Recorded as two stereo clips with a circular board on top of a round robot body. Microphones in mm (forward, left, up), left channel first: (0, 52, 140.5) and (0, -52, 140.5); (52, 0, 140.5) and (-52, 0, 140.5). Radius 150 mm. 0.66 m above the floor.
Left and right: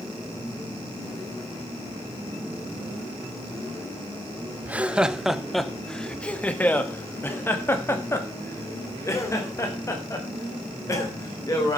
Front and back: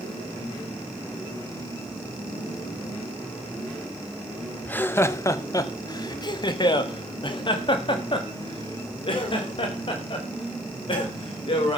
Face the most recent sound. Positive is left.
turn(degrees=35)